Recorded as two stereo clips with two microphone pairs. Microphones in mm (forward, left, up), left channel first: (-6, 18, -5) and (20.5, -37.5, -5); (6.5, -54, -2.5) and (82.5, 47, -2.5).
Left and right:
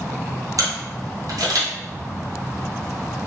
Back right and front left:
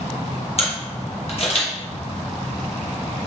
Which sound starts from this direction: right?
A camera shutter, at 0.6 s.